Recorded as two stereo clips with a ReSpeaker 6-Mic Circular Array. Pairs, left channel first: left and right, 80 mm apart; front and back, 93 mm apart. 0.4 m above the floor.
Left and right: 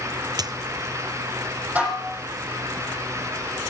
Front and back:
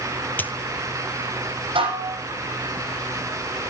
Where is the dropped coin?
70° right, 0.7 m.